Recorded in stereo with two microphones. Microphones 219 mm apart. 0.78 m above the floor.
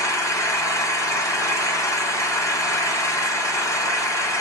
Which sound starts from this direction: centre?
An engine running, at 0.0 s.